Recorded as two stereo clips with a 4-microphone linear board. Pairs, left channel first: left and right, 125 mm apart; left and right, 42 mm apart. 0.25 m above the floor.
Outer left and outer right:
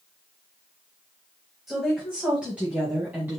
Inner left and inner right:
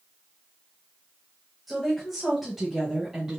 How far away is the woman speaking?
About 1.5 m.